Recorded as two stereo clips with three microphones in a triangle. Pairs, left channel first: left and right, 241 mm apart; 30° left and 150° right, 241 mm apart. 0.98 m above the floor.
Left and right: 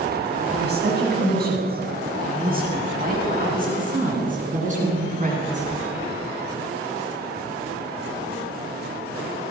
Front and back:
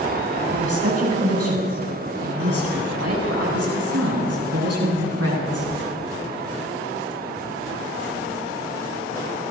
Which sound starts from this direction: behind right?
A woman speaking, at 0.5 s.